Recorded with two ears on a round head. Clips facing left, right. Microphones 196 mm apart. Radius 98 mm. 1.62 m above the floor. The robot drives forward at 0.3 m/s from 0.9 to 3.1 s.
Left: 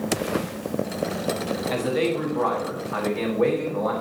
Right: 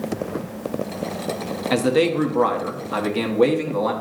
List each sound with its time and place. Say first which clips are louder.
1.7 s a man speaking: right 6 dB; 65° right (ahead or behind), 1.0 m; by 3.9 s 50° right (ahead or behind), 1.2 m